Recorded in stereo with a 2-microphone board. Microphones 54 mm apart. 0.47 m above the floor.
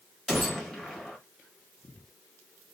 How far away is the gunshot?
About 0.8 m.